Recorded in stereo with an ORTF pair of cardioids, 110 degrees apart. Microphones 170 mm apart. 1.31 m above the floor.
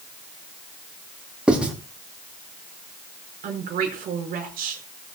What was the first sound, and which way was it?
Writing, 5° right.